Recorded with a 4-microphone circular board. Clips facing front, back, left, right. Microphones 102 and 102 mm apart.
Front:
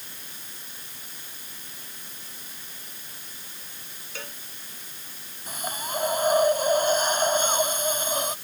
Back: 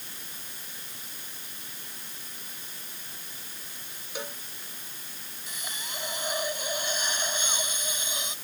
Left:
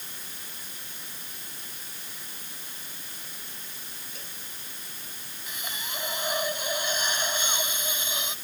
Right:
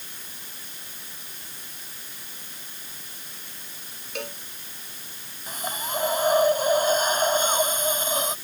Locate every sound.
4.2 s a cowbell: 105° right
5.5 s a hiss: 40° right